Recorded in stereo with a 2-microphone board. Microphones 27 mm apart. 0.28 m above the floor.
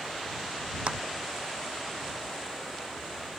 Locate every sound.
0.9 s a clap: 55° right (ahead or behind)